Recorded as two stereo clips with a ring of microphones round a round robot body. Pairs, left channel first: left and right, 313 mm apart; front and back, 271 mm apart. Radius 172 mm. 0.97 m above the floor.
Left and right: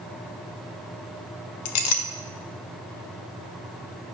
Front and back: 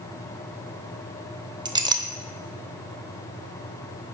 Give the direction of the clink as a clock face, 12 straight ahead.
9 o'clock.